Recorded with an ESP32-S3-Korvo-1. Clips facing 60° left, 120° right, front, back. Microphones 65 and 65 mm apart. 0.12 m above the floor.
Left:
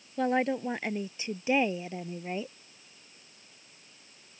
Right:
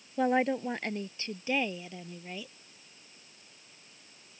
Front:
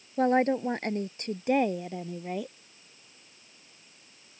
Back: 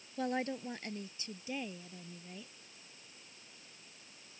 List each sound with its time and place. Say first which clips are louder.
0.2 s a woman speaking: even, front 12 dB; 35° right; by 2.5 s 5° left